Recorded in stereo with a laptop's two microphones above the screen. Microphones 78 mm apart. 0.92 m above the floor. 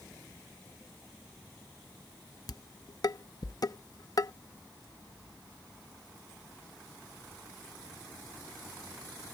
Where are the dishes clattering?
55° left (ahead or behind).